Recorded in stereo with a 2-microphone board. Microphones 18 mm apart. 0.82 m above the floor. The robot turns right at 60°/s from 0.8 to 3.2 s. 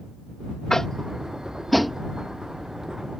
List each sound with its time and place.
0.7 s tapping: 35° left (ahead or behind); by 2.0 s centre (ahead or behind)